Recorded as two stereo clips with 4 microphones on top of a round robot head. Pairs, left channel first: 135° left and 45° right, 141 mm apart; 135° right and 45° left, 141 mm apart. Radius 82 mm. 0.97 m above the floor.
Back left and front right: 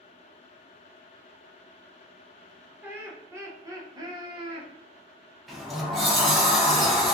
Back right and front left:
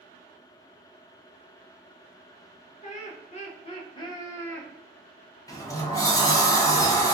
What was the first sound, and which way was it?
Laughter, 125° right.